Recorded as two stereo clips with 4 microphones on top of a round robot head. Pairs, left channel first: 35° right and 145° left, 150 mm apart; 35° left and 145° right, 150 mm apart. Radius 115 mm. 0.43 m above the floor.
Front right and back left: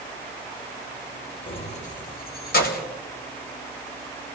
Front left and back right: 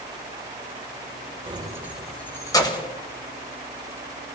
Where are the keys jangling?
90° right, 1.4 m; by 2.9 s 20° right, 1.9 m.